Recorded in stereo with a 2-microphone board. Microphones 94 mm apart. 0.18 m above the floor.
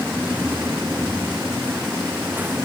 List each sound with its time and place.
Only background noise.